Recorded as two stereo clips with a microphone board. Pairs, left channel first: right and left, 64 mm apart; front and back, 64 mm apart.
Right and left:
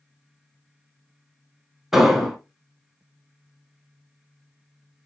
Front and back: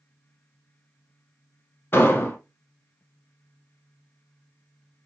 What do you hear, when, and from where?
1.9 s an explosion: 15° left, 1.0 m